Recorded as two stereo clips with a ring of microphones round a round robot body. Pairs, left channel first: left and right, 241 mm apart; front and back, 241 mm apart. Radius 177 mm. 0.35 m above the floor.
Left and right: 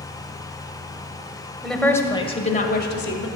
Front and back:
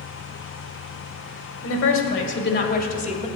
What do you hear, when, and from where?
1.6 s a woman speaking: straight ahead, 1.8 m; by 3.3 s 60° left, 2.0 m